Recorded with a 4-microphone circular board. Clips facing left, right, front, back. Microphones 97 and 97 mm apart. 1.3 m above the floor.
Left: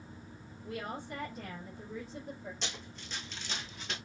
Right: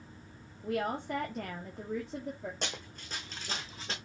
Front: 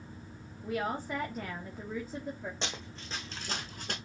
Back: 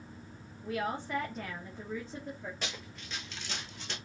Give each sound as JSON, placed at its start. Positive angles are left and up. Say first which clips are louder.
{"t": 0.6, "sound": "a woman speaking", "louder": "right 7 dB, front 1 dB", "azimuth_deg": -80, "distance_m": 2.5}
{"t": 2.6, "sound": "running footsteps", "louder": "right 3 dB, front 2 dB", "azimuth_deg": -65, "distance_m": 3.0}